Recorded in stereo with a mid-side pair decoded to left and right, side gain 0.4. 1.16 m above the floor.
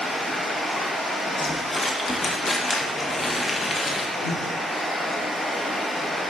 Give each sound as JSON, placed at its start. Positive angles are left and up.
{"t": 0.0, "sound": "running water", "azimuth_deg": 35, "distance_m": 1.4}
{"t": 1.4, "sound": "crumpling", "azimuth_deg": 30, "distance_m": 0.7}
{"t": 4.2, "sound": "breathing", "azimuth_deg": 65, "distance_m": 1.7}